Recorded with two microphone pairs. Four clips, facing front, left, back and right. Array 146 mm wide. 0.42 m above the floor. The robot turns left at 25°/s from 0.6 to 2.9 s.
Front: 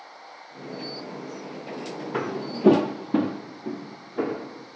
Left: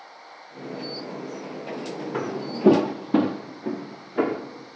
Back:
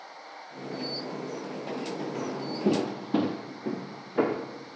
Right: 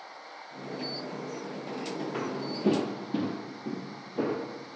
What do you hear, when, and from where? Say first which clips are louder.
2.1 s footsteps: left 4 dB, front 3 dB; 15° left, 1.1 m; by 4.4 s 130° left, 2.0 m